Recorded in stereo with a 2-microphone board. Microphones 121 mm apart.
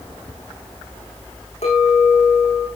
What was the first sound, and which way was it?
A clink, 70° left (ahead or behind).